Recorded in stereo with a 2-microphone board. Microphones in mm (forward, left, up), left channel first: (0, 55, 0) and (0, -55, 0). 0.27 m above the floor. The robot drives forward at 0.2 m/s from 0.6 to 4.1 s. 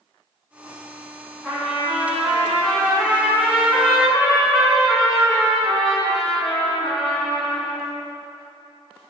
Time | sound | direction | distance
1.4 | a trumpet | centre (ahead or behind) | 1.8 m